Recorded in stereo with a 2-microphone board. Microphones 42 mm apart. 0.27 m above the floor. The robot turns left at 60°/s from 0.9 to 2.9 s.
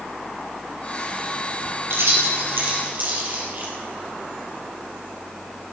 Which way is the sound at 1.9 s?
70° right (ahead or behind).